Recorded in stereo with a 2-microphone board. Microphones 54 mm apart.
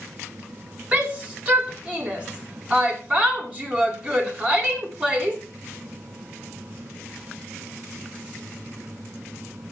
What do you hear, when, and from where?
0.9 s a shout: 25° right (ahead or behind), 4 m